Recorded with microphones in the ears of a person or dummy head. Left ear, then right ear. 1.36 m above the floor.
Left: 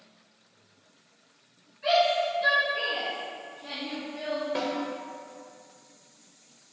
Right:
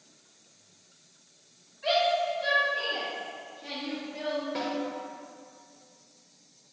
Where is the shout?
5° right (ahead or behind), 1.4 m; by 4.5 s 35° right (ahead or behind), 0.6 m.